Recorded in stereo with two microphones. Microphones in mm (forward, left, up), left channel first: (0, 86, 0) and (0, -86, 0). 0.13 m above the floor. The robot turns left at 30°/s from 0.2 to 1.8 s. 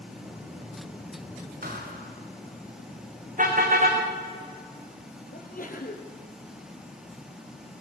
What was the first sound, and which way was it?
A thud, 55° right (ahead or behind).